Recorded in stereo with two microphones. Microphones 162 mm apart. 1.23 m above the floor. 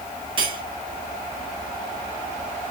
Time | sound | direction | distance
0.4 | cutlery clinking | 35° right (ahead or behind) | 1.5 m